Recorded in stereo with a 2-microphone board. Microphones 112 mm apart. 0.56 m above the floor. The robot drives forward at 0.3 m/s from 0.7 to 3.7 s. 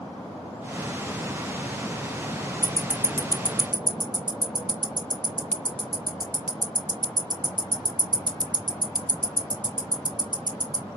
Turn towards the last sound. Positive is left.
turn(degrees=-40)  # may be behind; listen again after turning